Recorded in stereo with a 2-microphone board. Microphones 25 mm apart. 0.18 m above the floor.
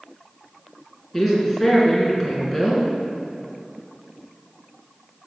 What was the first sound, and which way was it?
A woman speaking, 5° left (ahead or behind).